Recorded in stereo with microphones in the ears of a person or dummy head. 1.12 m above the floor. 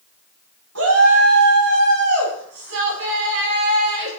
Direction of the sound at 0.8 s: 85° right.